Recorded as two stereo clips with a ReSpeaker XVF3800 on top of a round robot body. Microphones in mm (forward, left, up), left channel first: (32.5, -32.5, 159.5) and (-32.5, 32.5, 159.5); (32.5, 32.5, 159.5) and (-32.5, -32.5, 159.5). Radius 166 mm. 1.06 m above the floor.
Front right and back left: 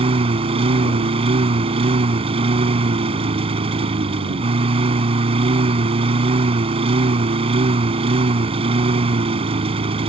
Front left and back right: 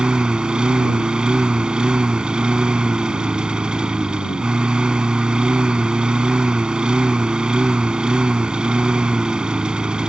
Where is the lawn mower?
145° left.